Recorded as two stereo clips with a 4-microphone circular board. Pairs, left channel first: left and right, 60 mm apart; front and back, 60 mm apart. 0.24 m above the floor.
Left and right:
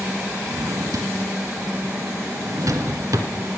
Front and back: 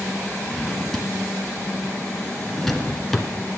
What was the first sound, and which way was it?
A drawer, 85° right.